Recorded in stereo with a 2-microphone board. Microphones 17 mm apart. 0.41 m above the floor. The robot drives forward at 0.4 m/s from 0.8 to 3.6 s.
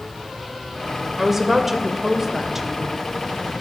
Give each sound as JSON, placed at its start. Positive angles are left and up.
{"t": 1.2, "sound": "a woman speaking", "side_deg": -20, "distance_m": 1.5}